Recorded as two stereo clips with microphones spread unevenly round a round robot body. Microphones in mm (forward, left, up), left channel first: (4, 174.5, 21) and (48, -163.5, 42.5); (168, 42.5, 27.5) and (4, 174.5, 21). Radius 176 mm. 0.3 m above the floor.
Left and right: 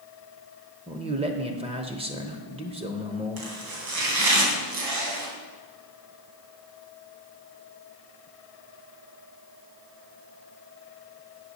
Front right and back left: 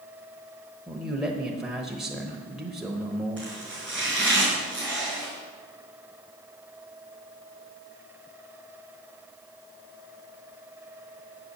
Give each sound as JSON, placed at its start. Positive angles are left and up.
{"t": 0.9, "sound": "a man speaking", "azimuth_deg": -140, "distance_m": 0.9}
{"t": 3.4, "sound": "chopping", "azimuth_deg": -125, "distance_m": 2.5}